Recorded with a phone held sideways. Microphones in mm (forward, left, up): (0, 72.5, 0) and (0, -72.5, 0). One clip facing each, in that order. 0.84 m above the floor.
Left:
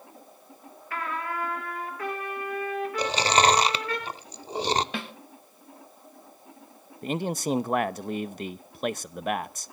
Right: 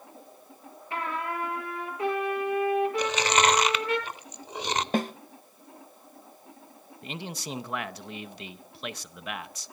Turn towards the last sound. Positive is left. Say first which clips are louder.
# left 10 dB
turn(degrees=45)  # may be behind; listen again after turning